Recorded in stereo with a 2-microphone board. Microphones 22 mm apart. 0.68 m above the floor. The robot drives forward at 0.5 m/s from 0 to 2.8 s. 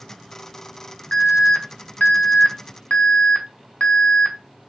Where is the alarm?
50° left (ahead or behind), 1.1 m; by 4.4 s 75° left (ahead or behind), 0.9 m.